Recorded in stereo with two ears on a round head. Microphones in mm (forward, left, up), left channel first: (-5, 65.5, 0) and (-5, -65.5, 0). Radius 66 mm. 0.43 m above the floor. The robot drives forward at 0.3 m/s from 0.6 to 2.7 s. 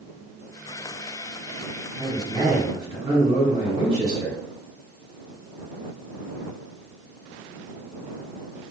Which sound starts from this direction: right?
A man speaking, at 2.0 s.